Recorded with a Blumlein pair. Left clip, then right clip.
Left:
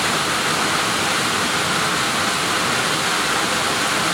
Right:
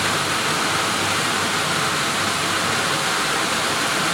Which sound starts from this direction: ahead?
Running water, at 0.0 s.